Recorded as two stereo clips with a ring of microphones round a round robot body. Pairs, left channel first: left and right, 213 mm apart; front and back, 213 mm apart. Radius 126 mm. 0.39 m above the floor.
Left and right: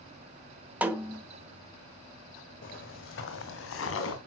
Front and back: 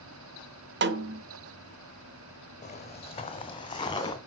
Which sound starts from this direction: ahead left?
Footsteps, at 2.6 s.